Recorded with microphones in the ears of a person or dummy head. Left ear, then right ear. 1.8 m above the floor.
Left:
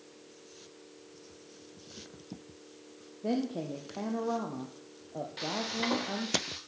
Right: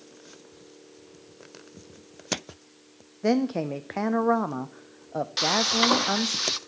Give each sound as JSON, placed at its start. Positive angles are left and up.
{"t": 3.2, "sound": "a woman speaking", "side_deg": -55, "distance_m": 0.5}
{"t": 5.4, "sound": "frying", "side_deg": -55, "distance_m": 0.7}